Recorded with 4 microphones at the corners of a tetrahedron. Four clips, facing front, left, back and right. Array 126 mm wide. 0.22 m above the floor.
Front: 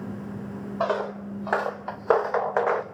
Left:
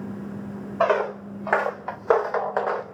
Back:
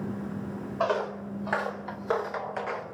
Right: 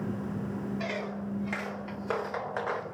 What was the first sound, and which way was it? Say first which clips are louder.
Footsteps: left 13 dB, front 1 dB; 80° left.